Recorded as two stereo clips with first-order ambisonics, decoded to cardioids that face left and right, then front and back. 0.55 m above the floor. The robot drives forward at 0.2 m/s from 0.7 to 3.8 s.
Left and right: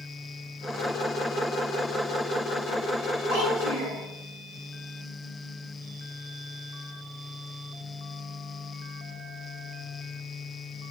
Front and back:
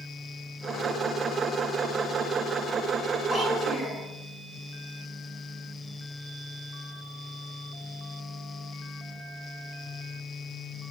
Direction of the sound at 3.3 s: 85° right.